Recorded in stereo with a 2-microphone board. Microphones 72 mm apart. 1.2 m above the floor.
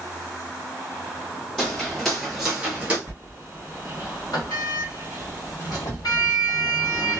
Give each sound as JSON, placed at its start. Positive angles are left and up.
{"t": 1.6, "sound": "footsteps", "side_deg": 10, "distance_m": 1.5}
{"t": 3.1, "sound": "a sliding door", "side_deg": 60, "distance_m": 1.7}